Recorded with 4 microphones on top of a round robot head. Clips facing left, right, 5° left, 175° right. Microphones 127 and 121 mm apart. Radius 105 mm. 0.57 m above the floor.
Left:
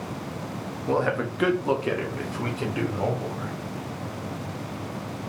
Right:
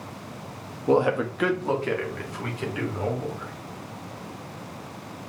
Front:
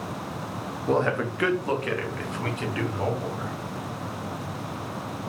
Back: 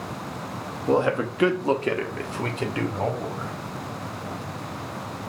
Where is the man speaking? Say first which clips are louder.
Right 4 dB, back 2 dB; 105° right, 0.6 m; by 3.5 s 135° left, 1.6 m.